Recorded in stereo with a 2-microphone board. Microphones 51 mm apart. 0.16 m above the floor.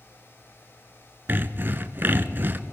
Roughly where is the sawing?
Right.